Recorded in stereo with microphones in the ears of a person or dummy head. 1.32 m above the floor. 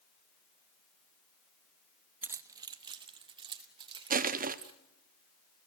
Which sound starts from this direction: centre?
Keys jangling, at 2.2 s.